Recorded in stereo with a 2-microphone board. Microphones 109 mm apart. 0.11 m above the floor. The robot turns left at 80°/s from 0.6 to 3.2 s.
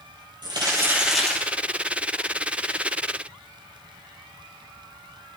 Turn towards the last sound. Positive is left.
turn(degrees=20)